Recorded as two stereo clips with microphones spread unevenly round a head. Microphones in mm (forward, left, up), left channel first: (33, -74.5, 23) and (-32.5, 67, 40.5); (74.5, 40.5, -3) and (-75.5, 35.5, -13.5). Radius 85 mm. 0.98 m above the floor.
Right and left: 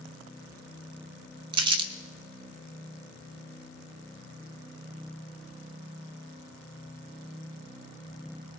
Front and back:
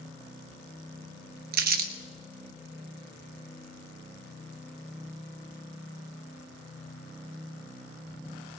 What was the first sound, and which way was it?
Crumpling, 175° left.